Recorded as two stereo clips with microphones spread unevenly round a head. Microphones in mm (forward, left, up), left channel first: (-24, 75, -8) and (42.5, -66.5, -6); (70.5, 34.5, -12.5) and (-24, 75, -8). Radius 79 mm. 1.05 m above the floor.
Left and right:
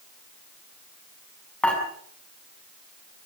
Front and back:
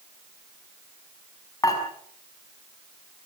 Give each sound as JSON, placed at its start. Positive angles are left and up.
{"t": 1.6, "sound": "dishes clattering", "azimuth_deg": 35, "distance_m": 6.5}